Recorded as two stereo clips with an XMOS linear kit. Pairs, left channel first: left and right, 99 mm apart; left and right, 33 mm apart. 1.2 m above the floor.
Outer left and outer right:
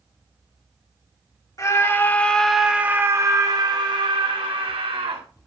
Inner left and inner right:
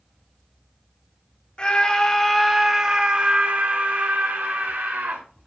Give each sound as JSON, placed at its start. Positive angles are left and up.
{"t": 1.6, "sound": "a scream", "side_deg": 35, "distance_m": 2.5}